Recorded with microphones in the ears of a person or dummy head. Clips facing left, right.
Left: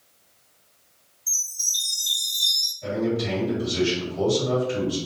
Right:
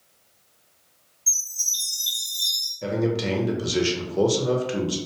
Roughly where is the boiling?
No boiling in this recording.